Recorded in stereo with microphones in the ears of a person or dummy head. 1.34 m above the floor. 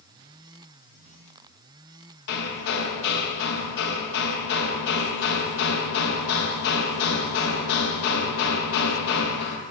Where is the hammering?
60° left (ahead or behind), 1.3 m.